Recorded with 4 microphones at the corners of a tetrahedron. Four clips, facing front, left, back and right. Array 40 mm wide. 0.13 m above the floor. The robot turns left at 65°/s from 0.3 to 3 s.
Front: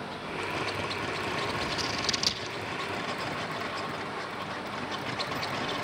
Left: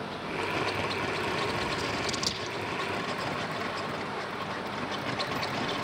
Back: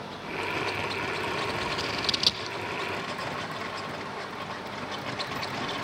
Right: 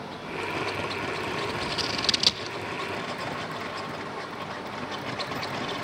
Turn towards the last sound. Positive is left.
turn(degrees=-170)